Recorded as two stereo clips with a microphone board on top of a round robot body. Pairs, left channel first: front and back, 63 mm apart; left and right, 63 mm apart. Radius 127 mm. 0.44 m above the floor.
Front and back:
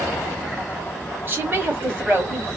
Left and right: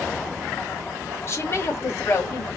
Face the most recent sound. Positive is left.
turn(degrees=135)